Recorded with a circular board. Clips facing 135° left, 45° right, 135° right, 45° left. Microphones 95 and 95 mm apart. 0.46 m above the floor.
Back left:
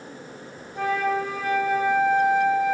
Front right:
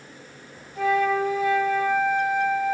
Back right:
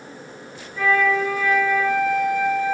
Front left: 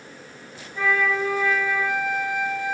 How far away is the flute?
About 5 m.